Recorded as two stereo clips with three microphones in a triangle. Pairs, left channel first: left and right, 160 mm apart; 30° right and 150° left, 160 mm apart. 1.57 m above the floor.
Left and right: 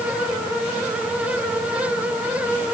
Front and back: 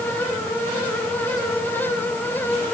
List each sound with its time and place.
Only background noise.